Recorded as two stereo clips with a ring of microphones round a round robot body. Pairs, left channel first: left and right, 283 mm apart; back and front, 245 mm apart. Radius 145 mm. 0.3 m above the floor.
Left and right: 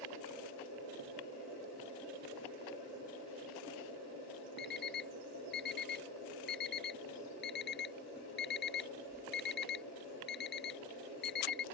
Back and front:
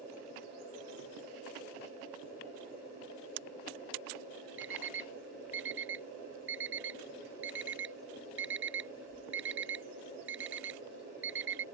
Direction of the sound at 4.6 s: 35° left.